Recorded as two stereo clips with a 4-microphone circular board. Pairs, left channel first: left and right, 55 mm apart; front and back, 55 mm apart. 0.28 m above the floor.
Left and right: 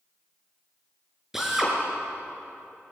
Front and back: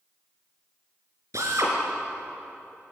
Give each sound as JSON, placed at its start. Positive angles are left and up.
{"t": 1.3, "sound": "a drill", "azimuth_deg": -175, "distance_m": 5.0}